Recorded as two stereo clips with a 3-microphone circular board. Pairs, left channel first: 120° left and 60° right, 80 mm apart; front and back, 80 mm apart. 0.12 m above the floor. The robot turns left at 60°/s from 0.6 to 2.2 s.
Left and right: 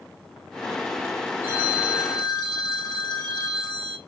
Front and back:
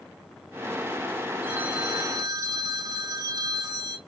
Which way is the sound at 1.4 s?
110° right.